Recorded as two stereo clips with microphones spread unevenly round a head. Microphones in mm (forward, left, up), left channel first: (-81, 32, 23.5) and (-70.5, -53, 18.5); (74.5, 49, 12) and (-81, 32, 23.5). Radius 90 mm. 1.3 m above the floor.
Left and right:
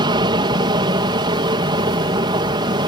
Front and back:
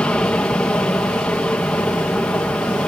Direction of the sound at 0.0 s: 75° right.